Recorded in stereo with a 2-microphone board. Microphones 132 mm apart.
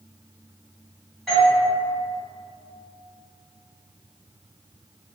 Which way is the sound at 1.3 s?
5° left (ahead or behind).